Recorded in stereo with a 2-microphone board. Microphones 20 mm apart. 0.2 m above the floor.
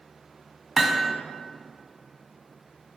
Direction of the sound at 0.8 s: 5° right (ahead or behind).